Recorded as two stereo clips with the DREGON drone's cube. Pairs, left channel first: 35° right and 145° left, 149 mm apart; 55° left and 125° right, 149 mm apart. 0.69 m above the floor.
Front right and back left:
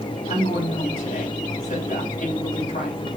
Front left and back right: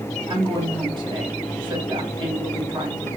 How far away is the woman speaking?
About 3.5 m.